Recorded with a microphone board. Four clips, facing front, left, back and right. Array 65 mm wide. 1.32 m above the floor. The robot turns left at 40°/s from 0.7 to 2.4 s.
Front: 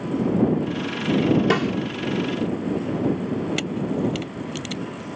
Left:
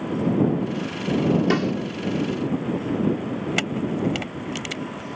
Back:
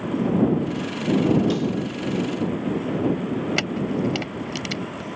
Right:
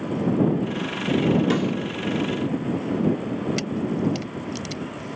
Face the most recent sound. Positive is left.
turn(degrees=130)